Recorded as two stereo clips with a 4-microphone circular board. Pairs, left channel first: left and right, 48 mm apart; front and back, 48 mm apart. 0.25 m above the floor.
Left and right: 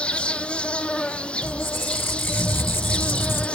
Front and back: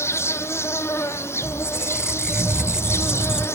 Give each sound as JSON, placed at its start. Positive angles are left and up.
{"t": 0.0, "sound": "an insect", "azimuth_deg": 25, "distance_m": 0.8}
{"t": 1.4, "sound": "a squeak", "azimuth_deg": 105, "distance_m": 1.0}